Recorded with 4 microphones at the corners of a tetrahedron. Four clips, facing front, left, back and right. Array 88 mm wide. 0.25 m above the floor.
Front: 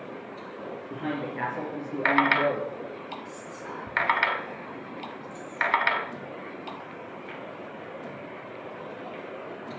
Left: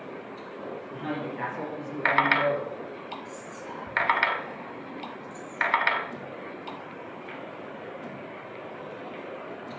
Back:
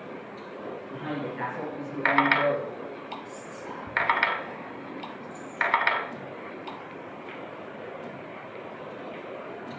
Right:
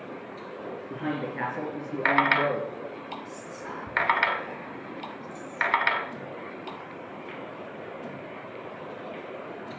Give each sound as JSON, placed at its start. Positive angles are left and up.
{"t": 0.9, "sound": "a man speaking", "azimuth_deg": -50, "distance_m": 4.0}
{"t": 3.2, "sound": "whispering", "azimuth_deg": -50, "distance_m": 2.5}